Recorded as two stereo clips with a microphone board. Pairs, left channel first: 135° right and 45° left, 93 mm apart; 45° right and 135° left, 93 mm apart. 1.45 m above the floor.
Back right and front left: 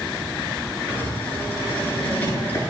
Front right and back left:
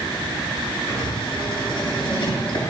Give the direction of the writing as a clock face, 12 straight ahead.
2 o'clock.